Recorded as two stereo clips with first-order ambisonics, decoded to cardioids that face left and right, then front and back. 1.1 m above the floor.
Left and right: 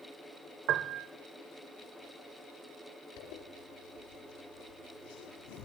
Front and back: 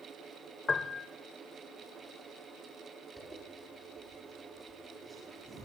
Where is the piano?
65° right, 1.1 m.